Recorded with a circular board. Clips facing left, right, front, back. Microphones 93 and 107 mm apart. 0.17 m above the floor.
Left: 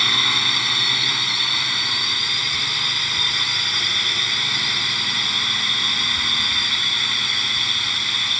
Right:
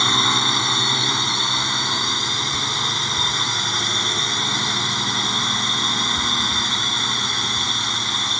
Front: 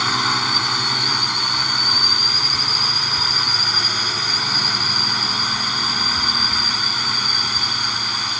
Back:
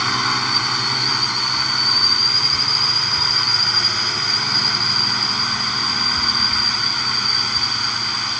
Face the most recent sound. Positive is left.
turn(degrees=-85)